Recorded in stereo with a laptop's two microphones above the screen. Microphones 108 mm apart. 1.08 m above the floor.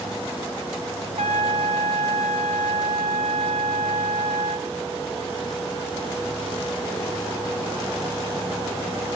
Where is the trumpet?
75° right (ahead or behind), 9 m.